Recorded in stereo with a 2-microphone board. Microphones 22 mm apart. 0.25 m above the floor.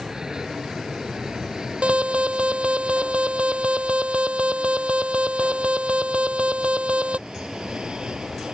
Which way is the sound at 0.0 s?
35° right (ahead or behind).